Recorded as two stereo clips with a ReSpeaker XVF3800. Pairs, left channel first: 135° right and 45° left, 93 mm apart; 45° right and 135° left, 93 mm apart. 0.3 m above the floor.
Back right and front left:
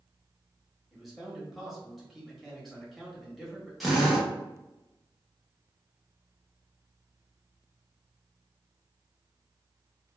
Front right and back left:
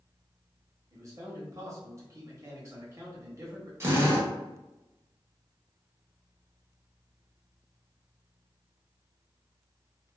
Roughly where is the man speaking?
Behind left.